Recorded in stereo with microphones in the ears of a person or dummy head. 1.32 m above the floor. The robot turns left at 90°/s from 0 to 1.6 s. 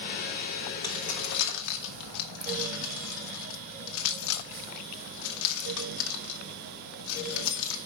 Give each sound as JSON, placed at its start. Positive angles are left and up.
{"t": 0.8, "sound": "keys jangling", "side_deg": 20, "distance_m": 1.2}